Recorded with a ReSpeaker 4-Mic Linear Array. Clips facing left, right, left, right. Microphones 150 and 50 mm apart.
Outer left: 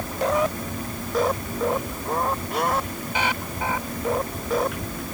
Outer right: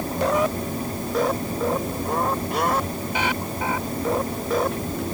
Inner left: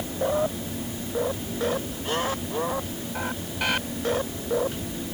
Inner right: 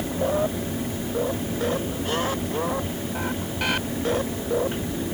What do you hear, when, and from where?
Only background noise.